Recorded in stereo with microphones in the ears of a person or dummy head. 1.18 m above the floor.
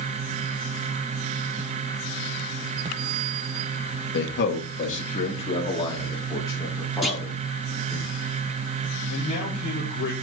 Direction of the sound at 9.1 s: 35° left (ahead or behind).